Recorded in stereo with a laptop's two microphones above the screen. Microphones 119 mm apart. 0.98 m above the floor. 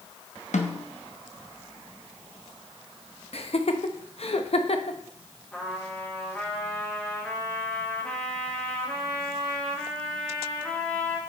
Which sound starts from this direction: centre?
A trumpet, at 5.5 s.